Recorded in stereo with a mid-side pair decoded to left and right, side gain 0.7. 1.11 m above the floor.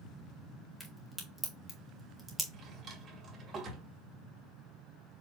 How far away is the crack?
About 1.9 m.